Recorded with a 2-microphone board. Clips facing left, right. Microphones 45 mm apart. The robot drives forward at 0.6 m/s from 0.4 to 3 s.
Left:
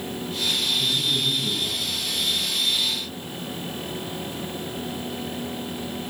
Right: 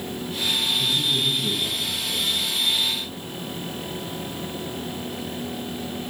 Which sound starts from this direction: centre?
A man speaking, at 0.8 s.